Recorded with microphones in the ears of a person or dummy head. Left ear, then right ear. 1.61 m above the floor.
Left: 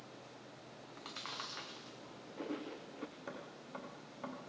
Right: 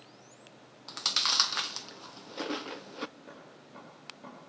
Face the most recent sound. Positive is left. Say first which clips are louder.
# left 1 dB
turn(degrees=45)  # may be behind; listen again after turning